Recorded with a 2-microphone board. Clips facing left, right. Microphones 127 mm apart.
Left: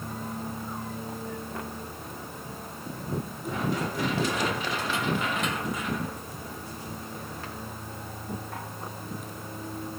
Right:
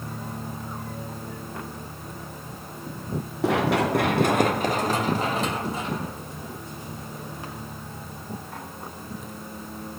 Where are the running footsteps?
80° right, 2 m; by 7.7 s 15° right (ahead or behind), 6 m.